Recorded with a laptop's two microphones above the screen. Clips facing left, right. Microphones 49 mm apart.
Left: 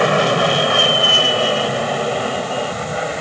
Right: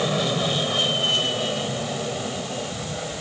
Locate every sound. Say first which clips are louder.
0.0 s an aircraft: left 9 dB; 60° left (ahead or behind); by 3.2 s 65° left (ahead or behind)